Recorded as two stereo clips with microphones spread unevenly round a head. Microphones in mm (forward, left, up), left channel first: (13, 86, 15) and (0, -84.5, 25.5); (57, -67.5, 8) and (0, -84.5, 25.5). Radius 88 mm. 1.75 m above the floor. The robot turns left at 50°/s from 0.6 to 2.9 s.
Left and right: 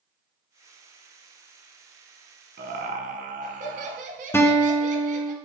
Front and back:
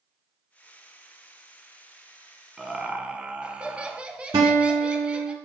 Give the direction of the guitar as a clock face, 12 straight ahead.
7 o'clock.